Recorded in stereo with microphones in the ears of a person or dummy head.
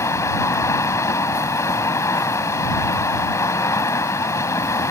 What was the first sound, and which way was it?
Running water, 15° left (ahead or behind).